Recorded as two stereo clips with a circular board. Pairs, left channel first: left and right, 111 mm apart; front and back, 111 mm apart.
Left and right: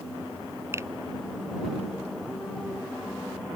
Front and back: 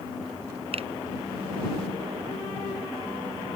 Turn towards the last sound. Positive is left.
turn(degrees=-155)